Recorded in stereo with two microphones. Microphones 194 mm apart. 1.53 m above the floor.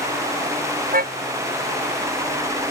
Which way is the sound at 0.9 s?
50° right (ahead or behind).